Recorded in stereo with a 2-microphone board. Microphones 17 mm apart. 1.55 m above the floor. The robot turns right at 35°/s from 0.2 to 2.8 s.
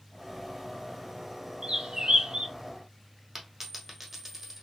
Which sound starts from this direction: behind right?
A bird, at 1.6 s.